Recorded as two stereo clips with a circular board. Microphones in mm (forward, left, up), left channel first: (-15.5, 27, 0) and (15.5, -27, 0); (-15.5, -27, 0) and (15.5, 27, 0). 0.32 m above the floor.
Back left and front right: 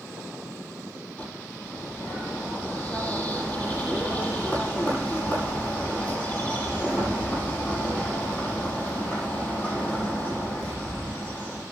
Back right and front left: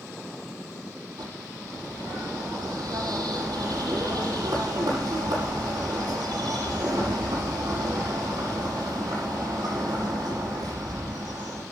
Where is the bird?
50° left, 8 m.